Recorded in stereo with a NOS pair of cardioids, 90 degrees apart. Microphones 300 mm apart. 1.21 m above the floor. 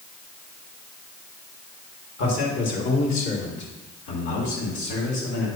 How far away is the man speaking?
About 2.5 m.